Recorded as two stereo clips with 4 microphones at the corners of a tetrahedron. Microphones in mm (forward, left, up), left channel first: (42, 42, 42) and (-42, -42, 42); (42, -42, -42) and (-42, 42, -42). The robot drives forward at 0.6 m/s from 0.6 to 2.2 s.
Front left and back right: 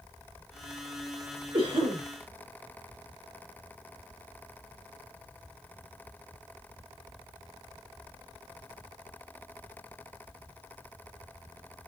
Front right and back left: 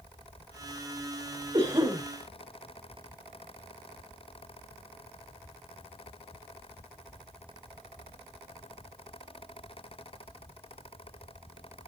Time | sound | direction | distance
1.5 | a cough | 175° right | 4.5 m